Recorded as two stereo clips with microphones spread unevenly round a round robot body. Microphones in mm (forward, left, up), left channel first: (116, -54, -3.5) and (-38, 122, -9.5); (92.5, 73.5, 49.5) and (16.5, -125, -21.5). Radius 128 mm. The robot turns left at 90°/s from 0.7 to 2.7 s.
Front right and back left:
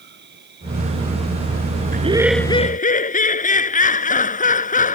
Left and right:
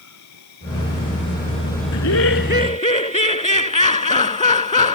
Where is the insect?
85° left; by 5.0 s 95° right.